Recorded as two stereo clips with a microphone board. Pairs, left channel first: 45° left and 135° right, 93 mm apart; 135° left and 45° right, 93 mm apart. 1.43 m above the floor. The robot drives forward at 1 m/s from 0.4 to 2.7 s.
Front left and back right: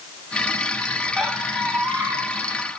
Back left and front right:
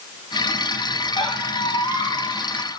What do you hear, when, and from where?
1.2 s a squeak: 135° left, 1.2 m; by 2.8 s 160° left, 2.5 m